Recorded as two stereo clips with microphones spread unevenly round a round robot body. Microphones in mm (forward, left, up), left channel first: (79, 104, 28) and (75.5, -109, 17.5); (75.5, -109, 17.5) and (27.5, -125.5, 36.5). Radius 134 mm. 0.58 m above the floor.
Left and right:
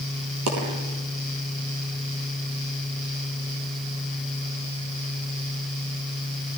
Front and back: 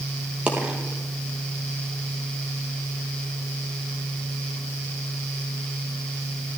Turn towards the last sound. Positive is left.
turn(degrees=-95)